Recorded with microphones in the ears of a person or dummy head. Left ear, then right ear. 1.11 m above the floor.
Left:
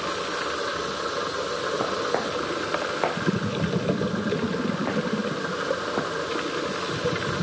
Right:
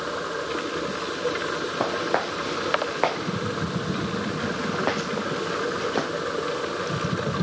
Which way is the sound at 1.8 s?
80° right.